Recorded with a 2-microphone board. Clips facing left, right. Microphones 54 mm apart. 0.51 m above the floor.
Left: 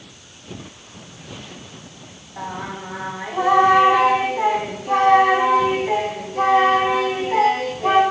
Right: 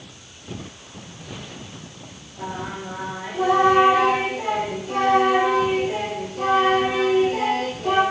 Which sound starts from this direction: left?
Singing, at 2.4 s.